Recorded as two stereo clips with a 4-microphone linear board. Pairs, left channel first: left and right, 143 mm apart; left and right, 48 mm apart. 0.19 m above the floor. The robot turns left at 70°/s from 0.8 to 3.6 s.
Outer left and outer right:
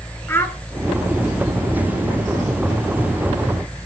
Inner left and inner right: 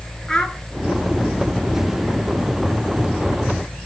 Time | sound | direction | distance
0.3 | a child speaking | 15° left (ahead or behind) | 1.4 m